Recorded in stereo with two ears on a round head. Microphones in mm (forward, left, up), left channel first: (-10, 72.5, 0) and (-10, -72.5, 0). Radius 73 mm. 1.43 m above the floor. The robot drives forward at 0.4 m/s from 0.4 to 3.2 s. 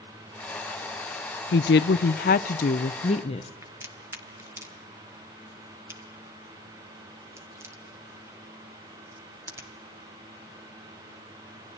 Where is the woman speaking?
70° left (ahead or behind), 0.6 m; by 3.5 s 40° left (ahead or behind), 0.8 m.